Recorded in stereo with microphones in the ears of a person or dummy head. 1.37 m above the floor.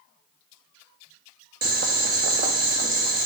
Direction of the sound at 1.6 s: 50° right (ahead or behind).